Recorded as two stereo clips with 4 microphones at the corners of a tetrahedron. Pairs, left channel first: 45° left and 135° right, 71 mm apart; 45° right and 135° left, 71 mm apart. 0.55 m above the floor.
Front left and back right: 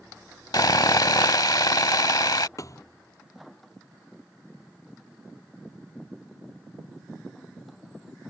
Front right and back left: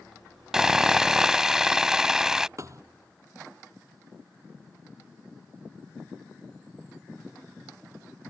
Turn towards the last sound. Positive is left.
turn(degrees=90)